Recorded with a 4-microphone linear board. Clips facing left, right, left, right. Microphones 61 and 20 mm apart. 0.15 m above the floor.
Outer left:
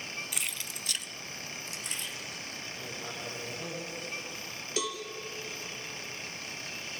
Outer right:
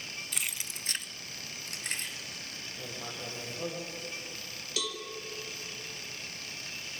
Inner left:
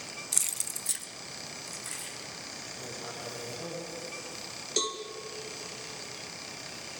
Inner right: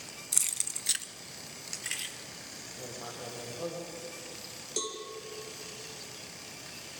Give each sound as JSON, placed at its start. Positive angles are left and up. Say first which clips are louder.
{"t": 0.3, "sound": "keys jangling", "louder": "outer left 1 dB, inner right 1 dB", "side_deg": 5, "distance_m": 0.8}
{"t": 2.8, "sound": "writing", "louder": "outer right 1 dB, inner right 1 dB", "side_deg": -30, "distance_m": 5.5}
{"t": 4.8, "sound": "a cowbell", "louder": "outer left 3 dB, inner left 5 dB", "side_deg": 20, "distance_m": 4.5}